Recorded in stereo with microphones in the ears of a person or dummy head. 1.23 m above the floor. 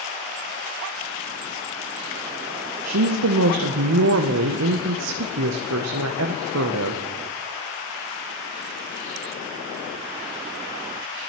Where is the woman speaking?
85° right, 0.6 m.